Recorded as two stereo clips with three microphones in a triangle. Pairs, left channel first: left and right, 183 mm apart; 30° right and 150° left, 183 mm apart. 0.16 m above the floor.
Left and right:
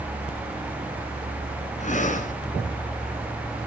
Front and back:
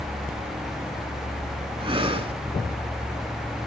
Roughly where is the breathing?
Left.